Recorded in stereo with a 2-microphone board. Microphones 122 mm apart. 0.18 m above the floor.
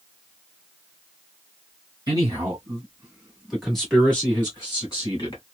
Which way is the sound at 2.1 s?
30° right (ahead or behind).